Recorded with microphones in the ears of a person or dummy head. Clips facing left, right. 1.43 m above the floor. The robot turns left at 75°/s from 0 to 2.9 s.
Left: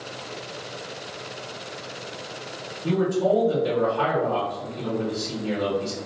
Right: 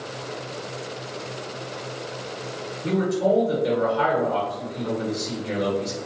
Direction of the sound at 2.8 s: 45° right (ahead or behind).